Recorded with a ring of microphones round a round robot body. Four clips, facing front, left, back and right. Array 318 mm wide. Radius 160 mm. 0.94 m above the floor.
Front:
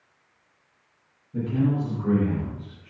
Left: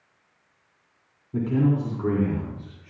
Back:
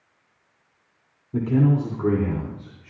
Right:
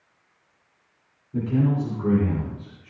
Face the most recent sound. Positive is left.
turn(degrees=175)